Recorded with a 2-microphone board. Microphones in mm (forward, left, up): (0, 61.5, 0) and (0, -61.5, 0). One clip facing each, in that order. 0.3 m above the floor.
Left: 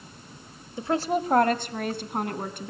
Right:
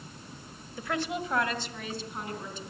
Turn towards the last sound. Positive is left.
turn(degrees=60)  # may be behind; listen again after turning